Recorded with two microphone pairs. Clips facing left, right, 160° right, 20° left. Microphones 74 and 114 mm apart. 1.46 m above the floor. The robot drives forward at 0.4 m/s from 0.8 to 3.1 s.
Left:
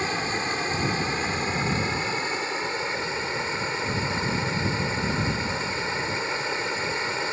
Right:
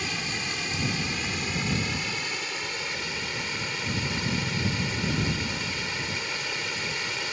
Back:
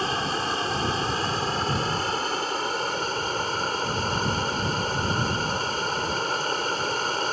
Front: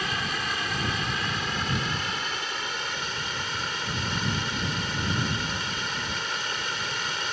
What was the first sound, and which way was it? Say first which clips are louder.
Running water: left 6 dB, back 5 dB; 145° left.